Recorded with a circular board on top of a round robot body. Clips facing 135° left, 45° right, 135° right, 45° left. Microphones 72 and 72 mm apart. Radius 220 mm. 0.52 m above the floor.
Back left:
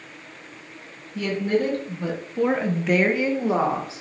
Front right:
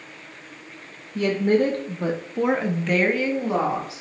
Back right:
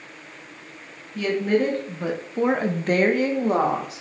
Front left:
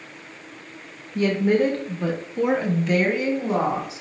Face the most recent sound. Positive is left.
turn(degrees=-165)